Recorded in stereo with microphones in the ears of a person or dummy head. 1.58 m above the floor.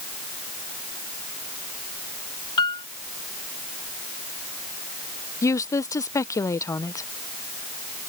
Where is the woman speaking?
15° left (ahead or behind).